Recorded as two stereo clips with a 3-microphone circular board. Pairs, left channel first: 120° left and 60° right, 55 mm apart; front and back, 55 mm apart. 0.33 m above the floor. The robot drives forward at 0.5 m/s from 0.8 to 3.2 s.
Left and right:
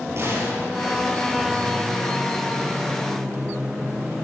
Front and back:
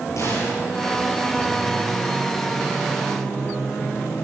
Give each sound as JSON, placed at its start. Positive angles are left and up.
{"t": 0.2, "sound": "a gunshot", "azimuth_deg": -20, "distance_m": 9.5}